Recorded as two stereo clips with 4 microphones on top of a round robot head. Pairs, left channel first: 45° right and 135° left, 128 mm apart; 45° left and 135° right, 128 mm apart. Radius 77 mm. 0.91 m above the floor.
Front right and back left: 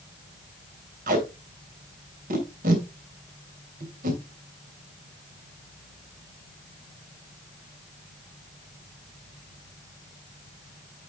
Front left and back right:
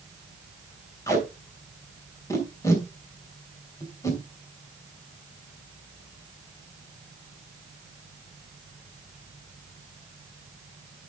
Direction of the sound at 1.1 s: 115° left.